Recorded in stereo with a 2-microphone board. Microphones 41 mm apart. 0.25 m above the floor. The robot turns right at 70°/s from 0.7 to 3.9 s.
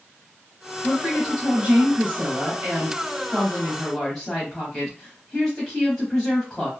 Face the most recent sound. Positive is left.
turn(degrees=15)